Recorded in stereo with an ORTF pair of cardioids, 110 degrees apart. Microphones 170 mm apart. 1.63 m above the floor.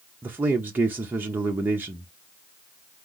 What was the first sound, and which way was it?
A man speaking, 10° right.